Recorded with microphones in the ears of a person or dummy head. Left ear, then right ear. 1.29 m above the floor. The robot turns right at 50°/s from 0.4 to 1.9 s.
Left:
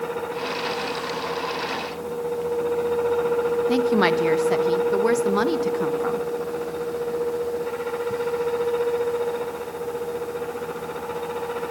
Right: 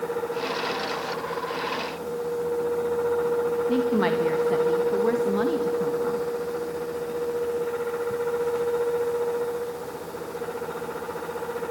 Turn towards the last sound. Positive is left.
turn(degrees=80)